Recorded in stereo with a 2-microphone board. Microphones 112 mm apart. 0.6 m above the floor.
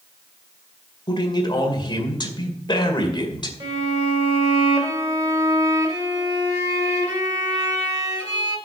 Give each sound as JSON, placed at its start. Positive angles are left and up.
{"t": 1.1, "sound": "a man speaking", "side_deg": 40, "distance_m": 2.0}
{"t": 3.6, "sound": "a violin", "side_deg": -35, "distance_m": 1.7}